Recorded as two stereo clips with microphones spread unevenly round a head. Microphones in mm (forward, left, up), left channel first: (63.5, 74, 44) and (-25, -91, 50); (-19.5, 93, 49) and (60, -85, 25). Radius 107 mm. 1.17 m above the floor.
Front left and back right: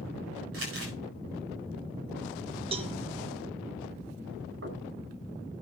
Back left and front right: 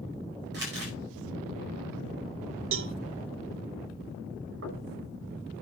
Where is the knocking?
95° right, 6 m.